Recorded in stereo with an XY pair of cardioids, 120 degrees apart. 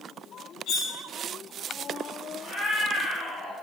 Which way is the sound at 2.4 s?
35° left.